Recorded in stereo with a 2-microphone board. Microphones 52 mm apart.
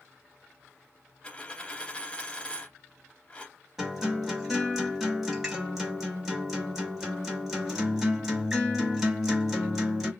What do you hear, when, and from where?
1.2 s a dropped coin: 20° left (ahead or behind), 0.6 m
3.8 s a guitar: 5° right (ahead or behind), 1.0 m